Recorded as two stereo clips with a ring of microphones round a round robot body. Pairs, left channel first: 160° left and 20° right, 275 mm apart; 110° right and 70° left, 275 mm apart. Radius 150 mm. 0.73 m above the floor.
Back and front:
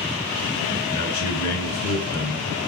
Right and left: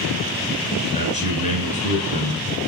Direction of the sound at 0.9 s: Straight behind.